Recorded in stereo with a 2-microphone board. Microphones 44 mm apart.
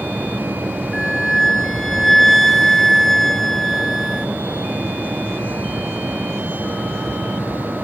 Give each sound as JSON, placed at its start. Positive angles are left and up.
{"t": 0.9, "sound": "a flute", "side_deg": 5, "distance_m": 1.1}